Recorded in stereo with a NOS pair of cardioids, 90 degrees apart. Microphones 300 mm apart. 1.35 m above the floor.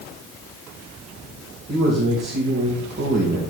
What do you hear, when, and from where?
1.7 s a man speaking: 35° right, 2.5 m